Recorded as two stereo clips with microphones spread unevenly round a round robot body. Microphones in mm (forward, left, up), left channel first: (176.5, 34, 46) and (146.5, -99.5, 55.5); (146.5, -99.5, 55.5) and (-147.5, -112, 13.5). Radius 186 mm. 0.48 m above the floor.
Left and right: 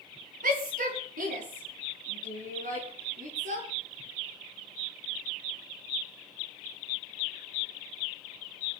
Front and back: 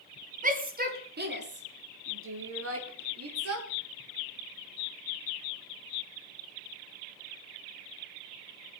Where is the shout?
120° right, 4.5 m; by 3.7 s 150° right, 5.5 m.